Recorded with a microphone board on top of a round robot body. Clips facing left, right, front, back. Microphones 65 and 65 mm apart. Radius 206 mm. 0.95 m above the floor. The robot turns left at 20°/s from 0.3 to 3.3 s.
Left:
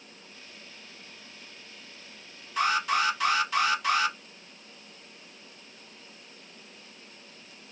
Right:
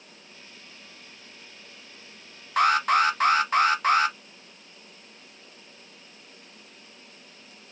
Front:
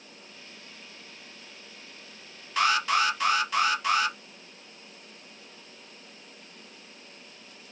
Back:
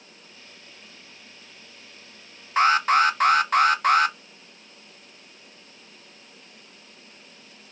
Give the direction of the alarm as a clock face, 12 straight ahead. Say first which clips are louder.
Right 5 dB, back 6 dB; 4 o'clock.